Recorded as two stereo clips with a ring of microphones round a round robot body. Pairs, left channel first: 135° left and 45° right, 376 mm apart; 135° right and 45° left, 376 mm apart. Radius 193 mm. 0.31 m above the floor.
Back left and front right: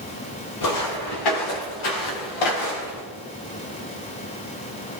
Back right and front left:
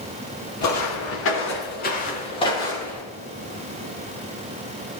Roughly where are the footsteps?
Behind.